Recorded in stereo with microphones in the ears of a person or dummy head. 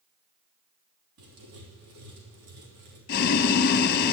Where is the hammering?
No hammering in this recording.